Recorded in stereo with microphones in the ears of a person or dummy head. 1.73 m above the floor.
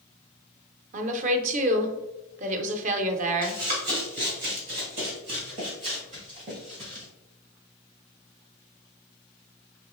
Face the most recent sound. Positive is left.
turn(degrees=-35)  # may be behind; listen again after turning